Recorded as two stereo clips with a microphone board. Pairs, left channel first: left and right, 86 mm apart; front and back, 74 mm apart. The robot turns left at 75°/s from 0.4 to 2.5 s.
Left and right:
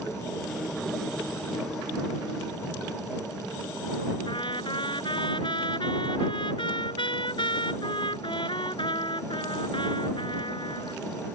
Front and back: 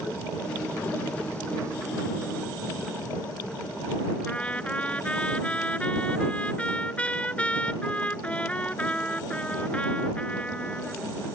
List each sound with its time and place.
4.3 s a trumpet: 75° left